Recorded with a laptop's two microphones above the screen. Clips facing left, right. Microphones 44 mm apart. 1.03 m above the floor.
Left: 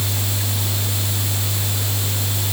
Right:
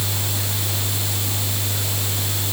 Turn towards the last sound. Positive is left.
No sound to turn to.